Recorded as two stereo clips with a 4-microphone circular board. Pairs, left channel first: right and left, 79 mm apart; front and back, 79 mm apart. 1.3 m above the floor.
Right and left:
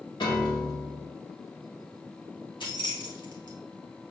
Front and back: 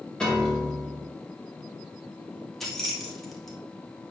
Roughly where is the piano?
Right.